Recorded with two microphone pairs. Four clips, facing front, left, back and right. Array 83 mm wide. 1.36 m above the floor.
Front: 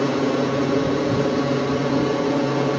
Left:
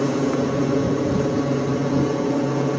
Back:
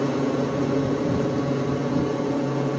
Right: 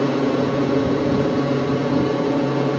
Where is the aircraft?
15° right; by 2.8 s 10° right.